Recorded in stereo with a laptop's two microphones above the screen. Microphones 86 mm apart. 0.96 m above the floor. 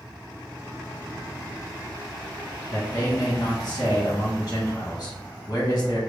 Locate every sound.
2.7 s a man speaking: 50° left (ahead or behind), 1.5 m